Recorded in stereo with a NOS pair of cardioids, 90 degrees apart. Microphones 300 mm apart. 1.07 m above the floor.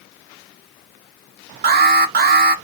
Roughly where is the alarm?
Ahead right.